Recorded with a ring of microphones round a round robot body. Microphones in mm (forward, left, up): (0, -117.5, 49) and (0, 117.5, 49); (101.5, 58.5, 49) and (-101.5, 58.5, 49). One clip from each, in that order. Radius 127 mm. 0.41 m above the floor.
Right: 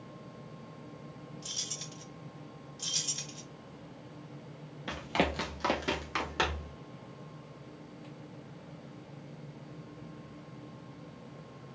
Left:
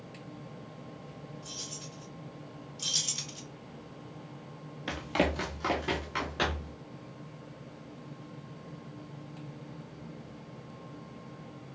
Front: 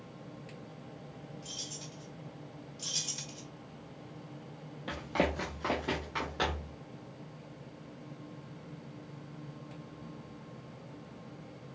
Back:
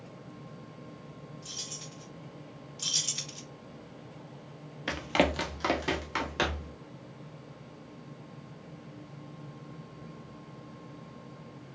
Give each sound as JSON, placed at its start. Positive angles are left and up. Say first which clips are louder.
{"t": 1.4, "sound": "keys jangling", "louder": "right 4 dB, back 2 dB", "azimuth_deg": -100, "distance_m": 1.1}
{"t": 2.8, "sound": "keys jangling", "louder": "left 3 dB, back 5 dB", "azimuth_deg": 165, "distance_m": 0.8}
{"t": 4.9, "sound": "running footsteps", "louder": "left 1 dB, back 5 dB", "azimuth_deg": 165, "distance_m": 0.5}